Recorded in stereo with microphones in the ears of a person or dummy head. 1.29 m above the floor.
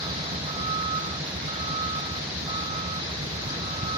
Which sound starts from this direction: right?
A vehicle, at 0.0 s.